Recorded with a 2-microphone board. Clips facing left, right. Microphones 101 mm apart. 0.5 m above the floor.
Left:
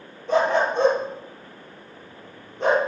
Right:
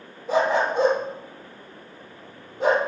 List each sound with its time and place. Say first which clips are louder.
0.3 s a dog barking: left 1 dB; 5° right (ahead or behind), 4.5 m